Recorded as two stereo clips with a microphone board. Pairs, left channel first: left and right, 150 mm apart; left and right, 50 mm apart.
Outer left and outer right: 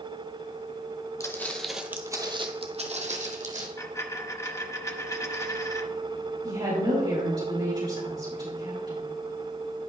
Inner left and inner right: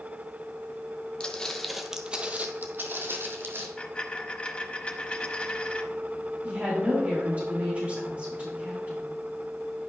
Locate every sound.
1.2 s footsteps: 20° left (ahead or behind), 1.2 m; by 3.7 s 55° right (ahead or behind), 1.9 m
3.8 s a dropped coin: 20° left (ahead or behind), 0.9 m
6.4 s a woman speaking: 35° right (ahead or behind), 4.5 m